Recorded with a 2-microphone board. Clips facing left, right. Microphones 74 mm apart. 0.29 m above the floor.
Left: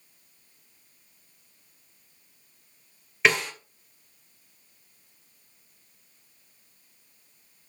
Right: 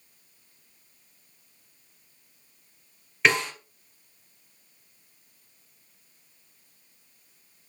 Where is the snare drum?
Centre (ahead or behind), 2 m.